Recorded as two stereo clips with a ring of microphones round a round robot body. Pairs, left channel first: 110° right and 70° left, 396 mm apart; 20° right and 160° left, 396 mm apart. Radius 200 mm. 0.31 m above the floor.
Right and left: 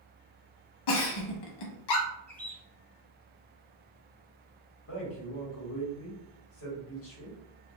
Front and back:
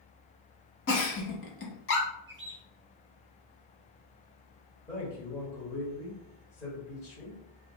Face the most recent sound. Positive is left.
turn(degrees=-100)